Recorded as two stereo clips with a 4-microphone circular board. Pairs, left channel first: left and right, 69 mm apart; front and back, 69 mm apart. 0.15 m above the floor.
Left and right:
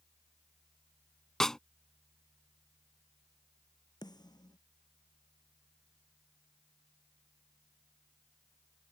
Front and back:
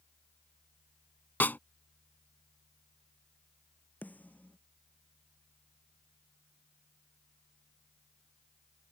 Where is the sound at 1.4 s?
15° left.